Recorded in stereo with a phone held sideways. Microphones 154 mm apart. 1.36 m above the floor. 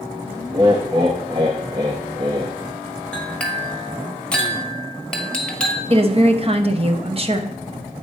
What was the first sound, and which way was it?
Laughter, 30° right (ahead or behind).